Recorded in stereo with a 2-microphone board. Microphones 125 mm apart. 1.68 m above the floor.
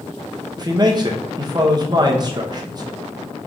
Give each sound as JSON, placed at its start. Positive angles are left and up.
{"t": 0.6, "sound": "a man speaking", "side_deg": -30, "distance_m": 1.0}